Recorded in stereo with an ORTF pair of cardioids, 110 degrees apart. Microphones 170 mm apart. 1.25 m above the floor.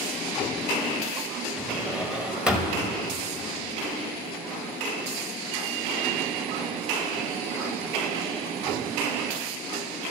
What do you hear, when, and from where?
1.6 s a drawer: 5° right, 1.0 m